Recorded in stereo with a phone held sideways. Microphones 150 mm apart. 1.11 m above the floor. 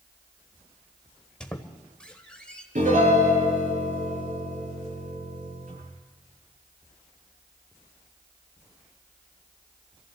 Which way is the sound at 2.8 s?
65° right (ahead or behind).